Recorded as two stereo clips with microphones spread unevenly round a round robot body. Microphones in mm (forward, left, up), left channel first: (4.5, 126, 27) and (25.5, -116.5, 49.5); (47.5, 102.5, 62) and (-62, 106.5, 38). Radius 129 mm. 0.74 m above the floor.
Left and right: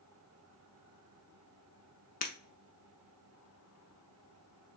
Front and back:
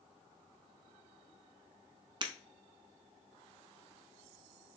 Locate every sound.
2.2 s breaking glass: 145° left, 0.7 m